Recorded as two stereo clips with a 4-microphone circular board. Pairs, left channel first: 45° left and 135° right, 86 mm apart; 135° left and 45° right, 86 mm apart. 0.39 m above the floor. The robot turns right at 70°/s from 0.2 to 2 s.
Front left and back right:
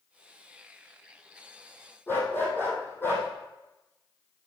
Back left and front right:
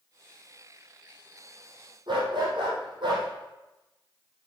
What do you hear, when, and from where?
2.1 s a dog barking: 20° right, 4 m